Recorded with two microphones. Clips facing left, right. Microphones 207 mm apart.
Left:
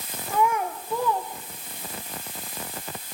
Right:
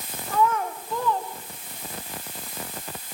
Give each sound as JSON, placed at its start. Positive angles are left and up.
{"t": 0.3, "sound": "a child speaking", "side_deg": 10, "distance_m": 4.0}